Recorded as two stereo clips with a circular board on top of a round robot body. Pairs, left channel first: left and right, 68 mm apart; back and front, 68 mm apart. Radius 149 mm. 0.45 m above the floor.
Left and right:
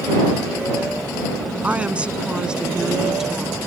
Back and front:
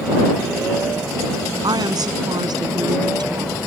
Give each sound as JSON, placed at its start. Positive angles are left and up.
{"t": 1.6, "sound": "a woman speaking", "azimuth_deg": -20}